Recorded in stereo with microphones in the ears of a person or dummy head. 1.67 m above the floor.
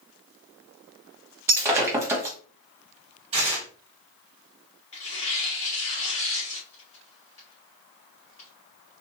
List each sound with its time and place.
1.5 s breaking glass: 10° right (ahead or behind), 1.1 m
3.3 s tearing paper: 25° right (ahead or behind), 1.9 m
4.9 s tearing paper: 40° left (ahead or behind), 1.7 m